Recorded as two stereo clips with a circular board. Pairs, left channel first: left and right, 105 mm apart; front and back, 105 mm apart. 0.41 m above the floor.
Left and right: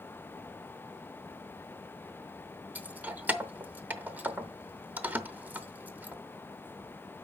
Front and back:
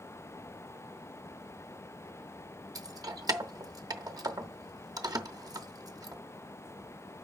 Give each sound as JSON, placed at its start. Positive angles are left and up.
{"t": 2.8, "sound": "keys jangling", "azimuth_deg": -155, "distance_m": 0.8}